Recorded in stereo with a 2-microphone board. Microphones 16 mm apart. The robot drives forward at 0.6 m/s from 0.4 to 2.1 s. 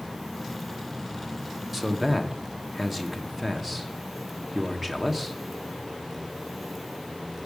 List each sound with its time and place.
1.7 s a man speaking: 15° right (ahead or behind), 0.9 m